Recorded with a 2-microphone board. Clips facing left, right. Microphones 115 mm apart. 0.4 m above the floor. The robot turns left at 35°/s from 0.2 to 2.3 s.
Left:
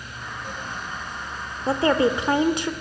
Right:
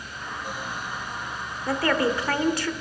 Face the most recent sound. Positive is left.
turn(degrees=20)  # may be behind; listen again after turning